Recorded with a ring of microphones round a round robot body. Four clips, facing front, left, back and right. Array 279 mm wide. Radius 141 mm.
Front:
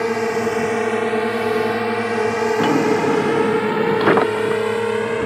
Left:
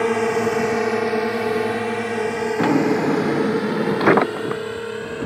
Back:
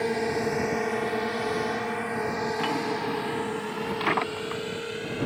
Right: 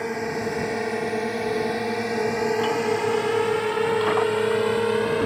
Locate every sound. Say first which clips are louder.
0.0 s a drone: left 8 dB, front 7 dB; 50° left; by 5.3 s 30° right
2.6 s a drawer: left 5 dB, front 12 dB; 50° left